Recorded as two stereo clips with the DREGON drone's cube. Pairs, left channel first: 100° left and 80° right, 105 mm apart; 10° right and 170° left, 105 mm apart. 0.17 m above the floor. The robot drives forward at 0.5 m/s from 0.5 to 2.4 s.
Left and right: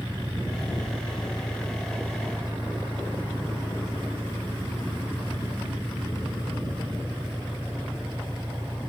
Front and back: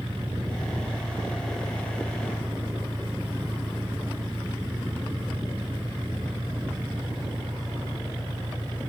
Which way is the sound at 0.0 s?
150° right.